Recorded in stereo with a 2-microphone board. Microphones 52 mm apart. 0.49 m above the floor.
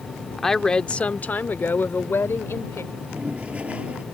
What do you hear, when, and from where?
0.4 s a woman speaking: 5° left (ahead or behind); by 2.8 s 60° left (ahead or behind)
2.9 s a toilet flushing: 25° right (ahead or behind)